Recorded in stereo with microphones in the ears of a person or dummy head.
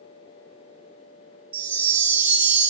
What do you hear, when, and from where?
1.5 s a chime: 20° right (ahead or behind), 0.5 m